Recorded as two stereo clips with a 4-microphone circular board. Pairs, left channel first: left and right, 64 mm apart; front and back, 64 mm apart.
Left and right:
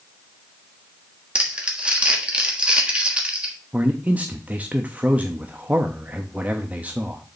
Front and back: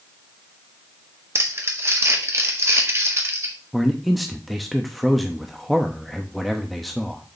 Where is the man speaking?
85° right, 0.8 m.